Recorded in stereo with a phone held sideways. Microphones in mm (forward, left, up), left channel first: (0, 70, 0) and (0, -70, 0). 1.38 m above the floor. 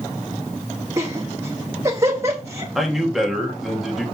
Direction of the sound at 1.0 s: 20° right (ahead or behind).